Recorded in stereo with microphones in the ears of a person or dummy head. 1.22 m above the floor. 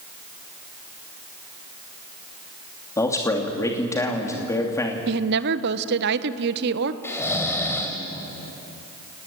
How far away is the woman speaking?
About 0.9 m.